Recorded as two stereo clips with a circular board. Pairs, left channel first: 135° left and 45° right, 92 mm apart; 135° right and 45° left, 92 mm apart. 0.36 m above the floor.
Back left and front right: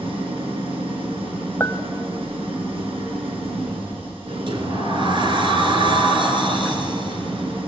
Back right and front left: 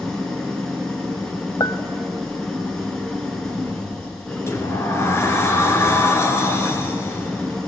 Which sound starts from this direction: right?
A sliding door, at 4.5 s.